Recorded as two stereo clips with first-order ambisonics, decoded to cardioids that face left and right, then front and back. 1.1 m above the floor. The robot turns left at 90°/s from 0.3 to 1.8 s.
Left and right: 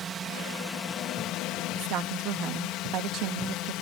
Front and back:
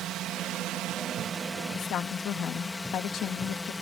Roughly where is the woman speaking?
Ahead right.